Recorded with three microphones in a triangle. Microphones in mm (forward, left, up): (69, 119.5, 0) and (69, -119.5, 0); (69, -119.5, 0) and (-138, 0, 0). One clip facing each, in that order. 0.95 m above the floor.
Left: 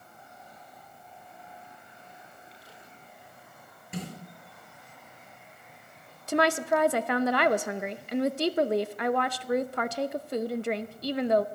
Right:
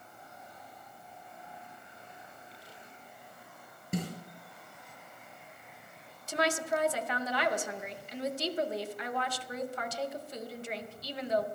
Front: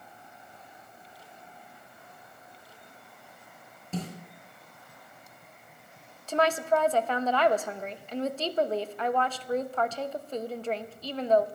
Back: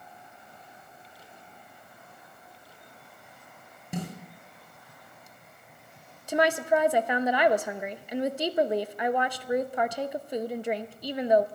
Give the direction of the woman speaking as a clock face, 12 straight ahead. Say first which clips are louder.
Left 6 dB, back 1 dB; 9 o'clock.